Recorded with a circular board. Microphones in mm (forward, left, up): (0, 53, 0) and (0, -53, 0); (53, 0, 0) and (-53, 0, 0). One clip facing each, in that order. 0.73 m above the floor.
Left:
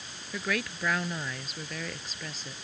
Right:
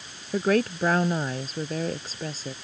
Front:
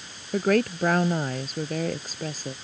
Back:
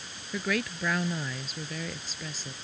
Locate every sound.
0.3 s a woman speaking: 40° right; by 2.5 s 35° right